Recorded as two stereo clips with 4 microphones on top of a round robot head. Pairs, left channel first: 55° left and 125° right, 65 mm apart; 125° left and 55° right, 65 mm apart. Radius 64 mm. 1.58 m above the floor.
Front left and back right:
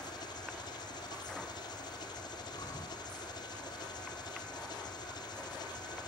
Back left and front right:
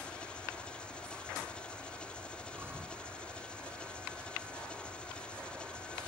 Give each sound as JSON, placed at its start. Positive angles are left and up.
{"t": 0.0, "sound": "an engine running", "azimuth_deg": 50}
{"t": 2.5, "sound": "breathing", "azimuth_deg": 10}